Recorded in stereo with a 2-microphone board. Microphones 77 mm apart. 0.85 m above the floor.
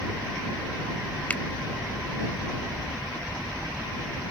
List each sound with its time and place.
1.3 s a finger snap: 20° left (ahead or behind)